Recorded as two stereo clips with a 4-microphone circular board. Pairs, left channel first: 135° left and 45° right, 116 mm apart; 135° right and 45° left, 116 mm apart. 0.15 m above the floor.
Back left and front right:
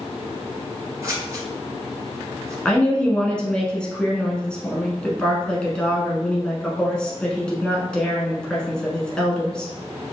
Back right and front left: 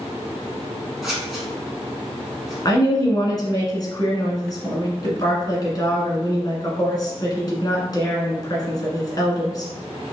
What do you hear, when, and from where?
1.0 s scissors: 40° right, 1.6 m
2.6 s a woman speaking: 150° right, 1.2 m